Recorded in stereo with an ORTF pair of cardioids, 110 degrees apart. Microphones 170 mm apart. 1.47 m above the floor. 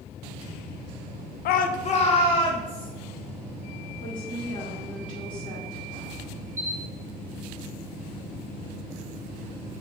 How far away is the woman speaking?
About 2.5 m.